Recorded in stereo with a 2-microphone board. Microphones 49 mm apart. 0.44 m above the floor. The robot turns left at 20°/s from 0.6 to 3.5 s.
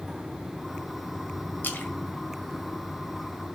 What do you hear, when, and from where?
1.6 s a splash: 45° left (ahead or behind), 1.4 m